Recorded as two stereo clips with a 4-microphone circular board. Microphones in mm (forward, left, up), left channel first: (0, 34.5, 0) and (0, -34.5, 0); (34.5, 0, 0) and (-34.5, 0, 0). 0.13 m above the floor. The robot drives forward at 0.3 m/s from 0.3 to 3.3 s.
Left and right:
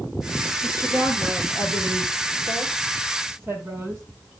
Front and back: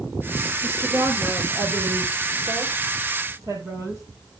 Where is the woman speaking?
135° right, 3 m; by 4.0 s 145° right, 3.5 m.